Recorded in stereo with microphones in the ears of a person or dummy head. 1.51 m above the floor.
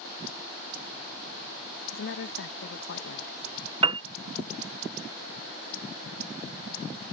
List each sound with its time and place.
1.9 s a woman speaking: 70° left (ahead or behind)
3.8 s a piano: 35° right (ahead or behind)